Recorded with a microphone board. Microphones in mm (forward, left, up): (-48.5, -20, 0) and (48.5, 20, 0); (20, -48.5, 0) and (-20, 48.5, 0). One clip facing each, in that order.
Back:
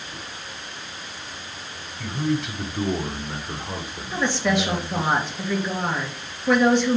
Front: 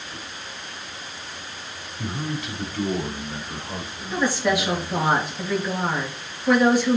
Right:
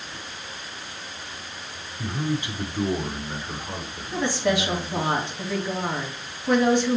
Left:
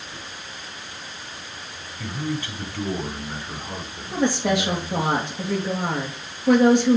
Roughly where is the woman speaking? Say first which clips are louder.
Front 1 dB, left 2 dB; left.